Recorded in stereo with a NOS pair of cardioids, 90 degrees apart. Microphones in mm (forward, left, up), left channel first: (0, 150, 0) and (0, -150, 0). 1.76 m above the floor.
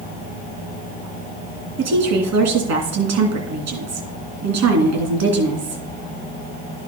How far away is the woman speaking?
About 3 m.